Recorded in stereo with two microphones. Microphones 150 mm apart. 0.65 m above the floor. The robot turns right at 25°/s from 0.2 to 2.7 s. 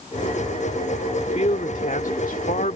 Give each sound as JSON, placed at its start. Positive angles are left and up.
{"t": 1.1, "sound": "a man speaking", "azimuth_deg": 55}